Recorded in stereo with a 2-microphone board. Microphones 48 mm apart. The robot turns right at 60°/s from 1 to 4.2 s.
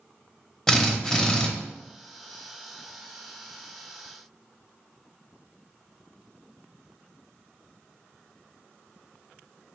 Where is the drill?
15° left (ahead or behind), 0.7 m; by 1.5 s 20° left (ahead or behind), 0.7 m.